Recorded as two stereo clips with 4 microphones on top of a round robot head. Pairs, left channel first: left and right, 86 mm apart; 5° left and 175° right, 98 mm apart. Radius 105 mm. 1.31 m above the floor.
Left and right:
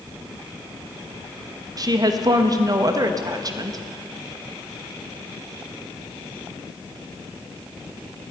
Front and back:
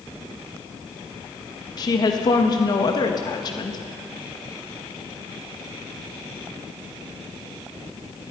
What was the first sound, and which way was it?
A woman speaking, 45° right.